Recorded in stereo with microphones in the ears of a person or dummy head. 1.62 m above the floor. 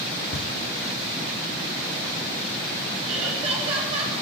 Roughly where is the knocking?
Left.